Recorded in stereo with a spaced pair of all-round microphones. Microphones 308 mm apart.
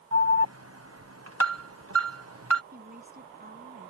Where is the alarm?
50° right (ahead or behind).